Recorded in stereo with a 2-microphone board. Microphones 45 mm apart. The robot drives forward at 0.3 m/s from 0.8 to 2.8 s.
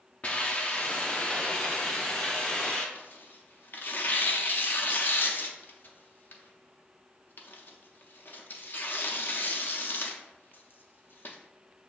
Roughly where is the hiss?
Left.